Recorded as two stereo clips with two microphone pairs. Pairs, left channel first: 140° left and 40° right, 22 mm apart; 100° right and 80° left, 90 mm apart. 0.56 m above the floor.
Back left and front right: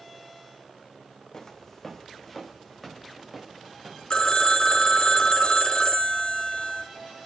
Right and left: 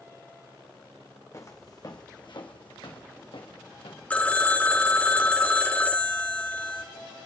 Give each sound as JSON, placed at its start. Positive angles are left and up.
{"t": 1.3, "sound": "footsteps", "azimuth_deg": -155, "distance_m": 1.5}
{"t": 4.1, "sound": "a phone ringing", "azimuth_deg": -170, "distance_m": 0.9}